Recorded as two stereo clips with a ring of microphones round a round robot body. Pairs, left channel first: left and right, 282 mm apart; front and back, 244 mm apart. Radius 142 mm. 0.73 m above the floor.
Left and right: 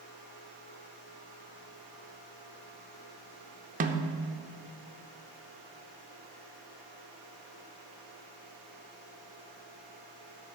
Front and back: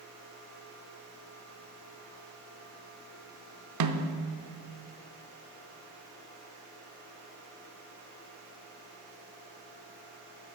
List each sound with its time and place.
3.8 s a snare drum: 155° right, 0.6 m